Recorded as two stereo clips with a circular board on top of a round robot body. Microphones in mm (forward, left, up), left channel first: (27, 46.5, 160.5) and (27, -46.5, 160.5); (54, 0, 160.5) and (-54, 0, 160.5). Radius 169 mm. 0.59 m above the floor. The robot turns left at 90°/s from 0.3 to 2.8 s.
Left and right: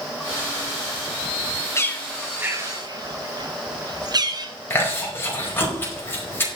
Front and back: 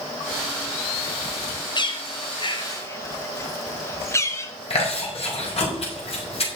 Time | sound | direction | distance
1.8 | a bird | 35° left | 1.9 m
4.7 | chewing | 25° left | 5 m